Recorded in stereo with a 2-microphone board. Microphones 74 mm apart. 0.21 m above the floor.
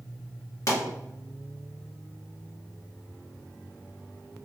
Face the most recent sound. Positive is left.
turn(degrees=50)  # may be behind; listen again after turning